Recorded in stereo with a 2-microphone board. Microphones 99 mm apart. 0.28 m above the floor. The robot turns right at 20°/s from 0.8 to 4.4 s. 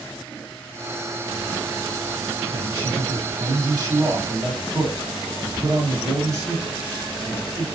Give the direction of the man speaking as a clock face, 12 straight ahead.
3 o'clock.